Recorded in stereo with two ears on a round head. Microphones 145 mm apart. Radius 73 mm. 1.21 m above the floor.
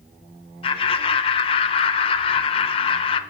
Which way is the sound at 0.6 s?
35° left (ahead or behind).